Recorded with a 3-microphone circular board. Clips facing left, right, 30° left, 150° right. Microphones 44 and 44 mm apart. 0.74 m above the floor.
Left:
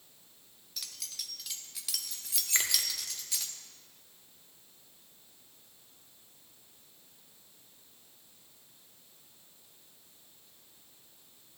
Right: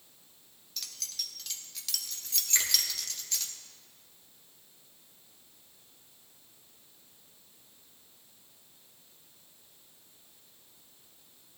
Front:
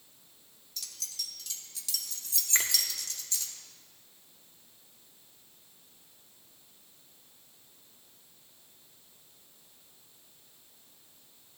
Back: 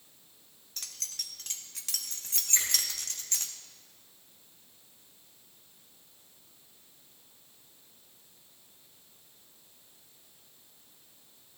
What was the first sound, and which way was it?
Keys jangling, 175° left.